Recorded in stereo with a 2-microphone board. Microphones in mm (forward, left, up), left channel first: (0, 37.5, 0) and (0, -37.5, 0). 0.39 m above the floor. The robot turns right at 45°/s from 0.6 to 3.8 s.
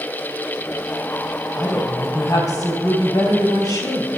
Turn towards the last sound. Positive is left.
turn(degrees=110)